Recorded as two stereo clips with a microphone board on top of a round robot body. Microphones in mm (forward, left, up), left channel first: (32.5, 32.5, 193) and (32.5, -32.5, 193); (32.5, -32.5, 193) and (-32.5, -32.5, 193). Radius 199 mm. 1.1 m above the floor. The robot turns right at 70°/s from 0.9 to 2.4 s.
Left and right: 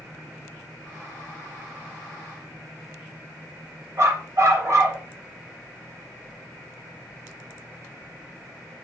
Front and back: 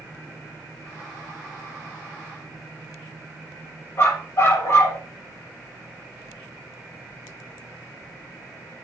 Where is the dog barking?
50° right, 8 m.